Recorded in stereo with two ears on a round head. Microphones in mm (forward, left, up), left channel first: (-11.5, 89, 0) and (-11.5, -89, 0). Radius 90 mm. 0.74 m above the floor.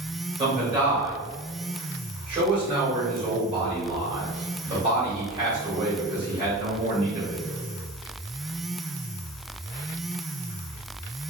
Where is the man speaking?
30° right (ahead or behind), 1.8 m.